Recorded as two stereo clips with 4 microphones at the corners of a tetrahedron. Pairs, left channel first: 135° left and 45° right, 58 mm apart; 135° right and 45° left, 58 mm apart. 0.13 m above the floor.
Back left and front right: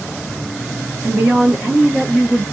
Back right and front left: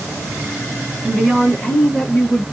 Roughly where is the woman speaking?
Ahead right.